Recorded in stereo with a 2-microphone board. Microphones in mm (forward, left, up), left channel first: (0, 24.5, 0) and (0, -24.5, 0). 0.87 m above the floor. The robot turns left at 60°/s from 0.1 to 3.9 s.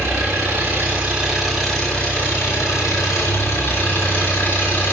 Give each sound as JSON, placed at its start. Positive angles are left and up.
{"t": 0.0, "sound": "an engine running", "azimuth_deg": -95, "distance_m": 2.5}